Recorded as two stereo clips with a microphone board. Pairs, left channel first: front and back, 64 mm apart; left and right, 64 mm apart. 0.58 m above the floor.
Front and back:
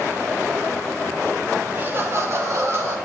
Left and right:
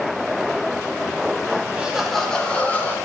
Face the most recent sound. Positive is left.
turn(degrees=145)